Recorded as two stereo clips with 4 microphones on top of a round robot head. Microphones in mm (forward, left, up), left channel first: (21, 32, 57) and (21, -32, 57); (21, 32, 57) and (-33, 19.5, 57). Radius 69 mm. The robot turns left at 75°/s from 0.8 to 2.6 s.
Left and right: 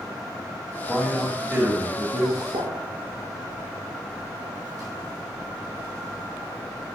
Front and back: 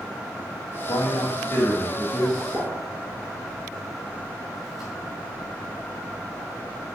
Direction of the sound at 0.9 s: 25° left.